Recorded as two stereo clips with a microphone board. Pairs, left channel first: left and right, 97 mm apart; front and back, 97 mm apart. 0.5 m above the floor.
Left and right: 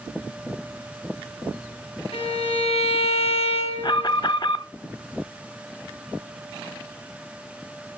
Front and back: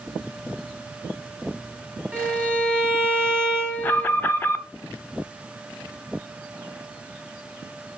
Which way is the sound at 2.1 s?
110° left.